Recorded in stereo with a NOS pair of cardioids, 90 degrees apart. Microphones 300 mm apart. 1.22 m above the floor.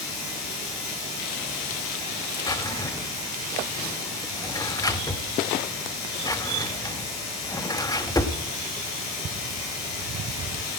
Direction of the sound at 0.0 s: 60° left.